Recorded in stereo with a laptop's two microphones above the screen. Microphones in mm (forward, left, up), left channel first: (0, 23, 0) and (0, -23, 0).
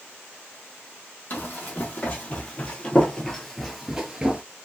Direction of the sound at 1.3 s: 40° left (ahead or behind).